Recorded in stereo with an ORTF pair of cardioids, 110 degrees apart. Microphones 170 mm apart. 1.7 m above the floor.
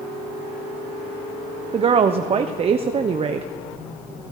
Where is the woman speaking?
35° right, 1.0 m.